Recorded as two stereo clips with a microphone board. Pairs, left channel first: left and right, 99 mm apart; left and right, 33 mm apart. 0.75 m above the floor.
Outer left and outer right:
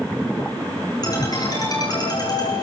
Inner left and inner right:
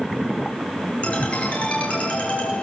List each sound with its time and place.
1.0 s a ringtone: 40° left (ahead or behind), 7.5 m